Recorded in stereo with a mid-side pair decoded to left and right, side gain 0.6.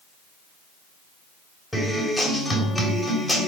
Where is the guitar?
5° left, 3.5 m.